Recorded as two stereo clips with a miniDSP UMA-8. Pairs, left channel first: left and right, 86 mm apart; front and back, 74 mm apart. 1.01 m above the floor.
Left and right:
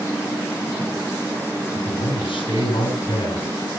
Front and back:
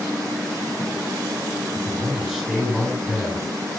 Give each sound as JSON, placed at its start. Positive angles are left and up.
{"t": 1.8, "sound": "a man speaking", "azimuth_deg": 100, "distance_m": 4.5}